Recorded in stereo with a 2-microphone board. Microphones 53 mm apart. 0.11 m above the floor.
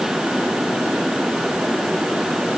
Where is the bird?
I don't hear a bird.